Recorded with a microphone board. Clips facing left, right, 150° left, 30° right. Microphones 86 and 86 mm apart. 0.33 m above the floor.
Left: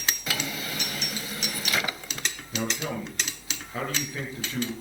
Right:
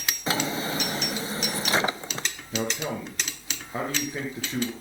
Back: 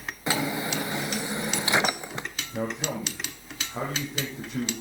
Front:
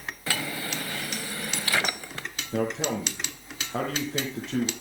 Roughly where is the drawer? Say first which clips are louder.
Right 5 dB, back 5 dB; behind right.